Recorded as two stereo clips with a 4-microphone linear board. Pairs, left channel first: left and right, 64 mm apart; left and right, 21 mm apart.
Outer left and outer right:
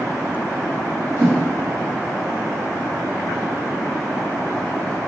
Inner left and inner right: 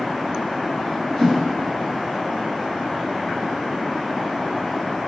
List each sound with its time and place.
1.2 s a whoosh: 40° left (ahead or behind), 1.3 m